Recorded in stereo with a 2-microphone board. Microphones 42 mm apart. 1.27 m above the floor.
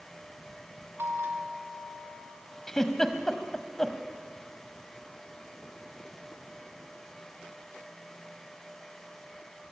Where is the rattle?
I don't hear a rattle.